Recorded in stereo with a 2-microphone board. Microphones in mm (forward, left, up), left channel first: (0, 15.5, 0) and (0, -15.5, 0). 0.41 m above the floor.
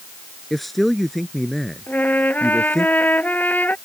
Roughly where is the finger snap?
No finger snap in this recording.